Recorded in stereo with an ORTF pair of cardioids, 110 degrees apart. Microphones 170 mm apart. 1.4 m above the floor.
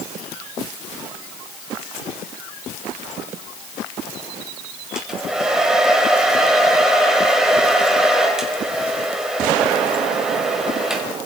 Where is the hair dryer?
5° right, 4 m.